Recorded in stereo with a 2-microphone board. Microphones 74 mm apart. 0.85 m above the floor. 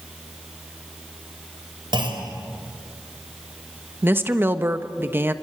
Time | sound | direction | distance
1.9 | a clunk | 75° right (ahead or behind) | 4 m
4.0 | a woman speaking | 25° right (ahead or behind) | 1.1 m